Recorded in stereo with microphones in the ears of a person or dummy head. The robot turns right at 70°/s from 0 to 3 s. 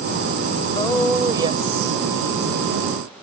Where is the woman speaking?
25° left (ahead or behind); by 2.9 s 55° right (ahead or behind).